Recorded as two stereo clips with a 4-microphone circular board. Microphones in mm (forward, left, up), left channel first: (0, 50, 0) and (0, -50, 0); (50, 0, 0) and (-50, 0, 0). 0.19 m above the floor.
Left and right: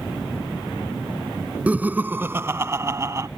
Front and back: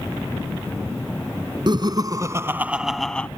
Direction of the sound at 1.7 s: 160° right.